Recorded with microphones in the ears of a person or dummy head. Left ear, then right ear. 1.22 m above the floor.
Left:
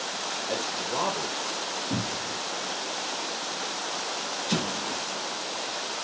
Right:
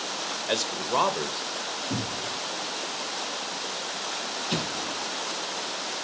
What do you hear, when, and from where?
0.5 s a man speaking: 55° right (ahead or behind), 1.4 m
1.9 s a cupboard door: 10° right (ahead or behind), 2 m
4.5 s an explosion: 65° left (ahead or behind), 4 m